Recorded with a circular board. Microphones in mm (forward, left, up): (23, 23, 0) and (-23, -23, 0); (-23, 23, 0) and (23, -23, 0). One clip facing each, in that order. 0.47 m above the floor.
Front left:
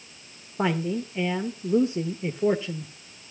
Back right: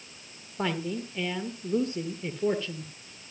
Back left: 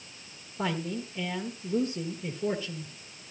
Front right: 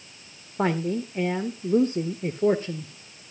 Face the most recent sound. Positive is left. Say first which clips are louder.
# front left 5 dB, front right 7 dB
turn(degrees=-20)